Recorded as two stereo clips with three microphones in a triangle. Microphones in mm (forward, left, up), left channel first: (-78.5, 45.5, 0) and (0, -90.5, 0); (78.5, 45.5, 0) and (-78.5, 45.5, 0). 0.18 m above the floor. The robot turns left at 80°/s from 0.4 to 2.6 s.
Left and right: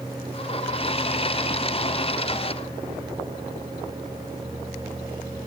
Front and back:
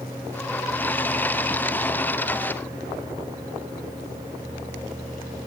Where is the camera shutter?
No camera shutter in this recording.